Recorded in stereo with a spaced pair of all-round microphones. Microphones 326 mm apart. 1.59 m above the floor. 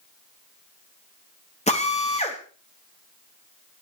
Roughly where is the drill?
Left.